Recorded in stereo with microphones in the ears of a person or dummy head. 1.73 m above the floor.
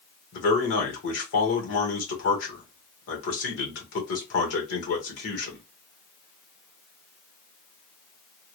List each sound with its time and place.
0.3 s a man speaking: 70° left (ahead or behind), 1.6 m